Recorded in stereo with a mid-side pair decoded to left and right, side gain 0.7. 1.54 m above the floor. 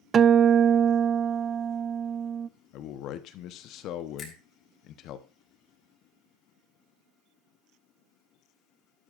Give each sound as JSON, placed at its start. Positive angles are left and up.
{"t": 0.1, "sound": "a guitar", "azimuth_deg": -35, "distance_m": 0.5}
{"t": 2.7, "sound": "a man speaking", "azimuth_deg": 55, "distance_m": 1.0}
{"t": 4.2, "sound": "a finger snap", "azimuth_deg": 35, "distance_m": 5.0}